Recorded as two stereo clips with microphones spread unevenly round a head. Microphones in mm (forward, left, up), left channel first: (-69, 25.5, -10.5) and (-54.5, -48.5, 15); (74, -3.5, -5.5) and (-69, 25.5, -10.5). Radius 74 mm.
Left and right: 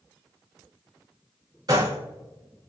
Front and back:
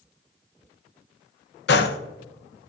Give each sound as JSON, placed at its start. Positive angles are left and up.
{"t": 1.7, "sound": "a gunshot", "azimuth_deg": -25, "distance_m": 0.6}